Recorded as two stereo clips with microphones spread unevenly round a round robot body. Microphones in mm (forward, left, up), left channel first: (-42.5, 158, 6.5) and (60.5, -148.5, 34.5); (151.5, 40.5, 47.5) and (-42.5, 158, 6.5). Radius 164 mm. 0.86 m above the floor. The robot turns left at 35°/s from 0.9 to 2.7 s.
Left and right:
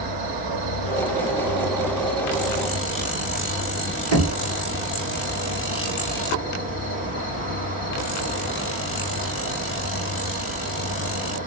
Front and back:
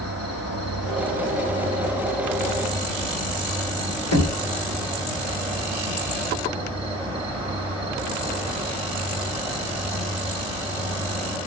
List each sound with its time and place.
0.0 s an insect: 75° right, 1.0 m; by 11.5 s 140° right, 1.0 m
4.1 s knocking: 50° right, 1.2 m